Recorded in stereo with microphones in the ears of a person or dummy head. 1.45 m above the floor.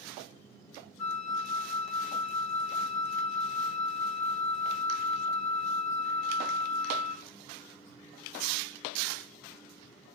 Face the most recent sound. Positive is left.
turn(degrees=65)  # may be behind; listen again after turning